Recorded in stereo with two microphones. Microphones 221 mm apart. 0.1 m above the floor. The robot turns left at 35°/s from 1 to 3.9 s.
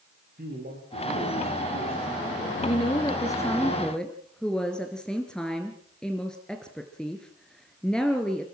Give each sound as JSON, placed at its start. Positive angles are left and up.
{"t": 0.4, "sound": "a man speaking", "azimuth_deg": -140, "distance_m": 7.0}
{"t": 2.6, "sound": "a woman speaking", "azimuth_deg": 50, "distance_m": 1.6}